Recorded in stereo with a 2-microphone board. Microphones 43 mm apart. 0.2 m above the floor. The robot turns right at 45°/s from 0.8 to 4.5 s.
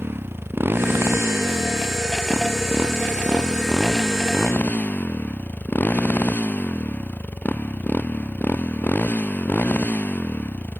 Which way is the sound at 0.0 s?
120° right.